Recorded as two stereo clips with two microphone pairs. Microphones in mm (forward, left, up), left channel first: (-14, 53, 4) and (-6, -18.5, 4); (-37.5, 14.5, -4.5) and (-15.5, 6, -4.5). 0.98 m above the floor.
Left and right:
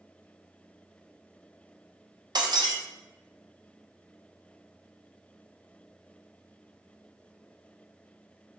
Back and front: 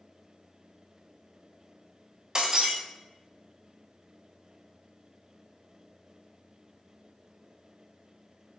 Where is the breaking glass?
80° right, 0.6 m.